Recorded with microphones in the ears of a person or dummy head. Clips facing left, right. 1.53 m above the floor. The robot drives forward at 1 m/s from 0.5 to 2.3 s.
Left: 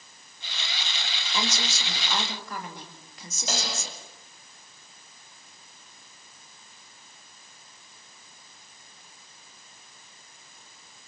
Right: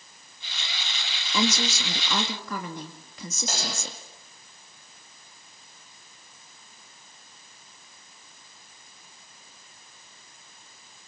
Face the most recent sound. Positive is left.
turn(degrees=70)  # may be behind; listen again after turning